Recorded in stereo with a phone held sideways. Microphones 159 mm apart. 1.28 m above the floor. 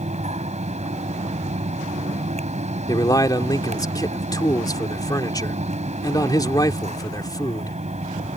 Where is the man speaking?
25° left (ahead or behind).